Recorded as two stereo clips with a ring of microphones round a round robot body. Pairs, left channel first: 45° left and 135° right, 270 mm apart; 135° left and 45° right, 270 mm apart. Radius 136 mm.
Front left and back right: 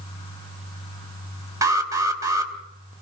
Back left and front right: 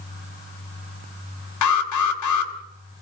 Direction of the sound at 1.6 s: 145° left.